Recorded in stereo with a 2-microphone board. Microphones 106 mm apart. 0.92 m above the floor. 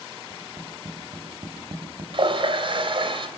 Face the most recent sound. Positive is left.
turn(degrees=-55)  # may be behind; listen again after turning